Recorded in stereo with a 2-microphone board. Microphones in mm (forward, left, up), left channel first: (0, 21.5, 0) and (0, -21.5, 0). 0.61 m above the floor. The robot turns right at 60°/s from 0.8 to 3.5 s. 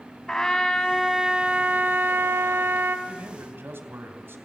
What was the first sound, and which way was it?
A trumpet, 165° left.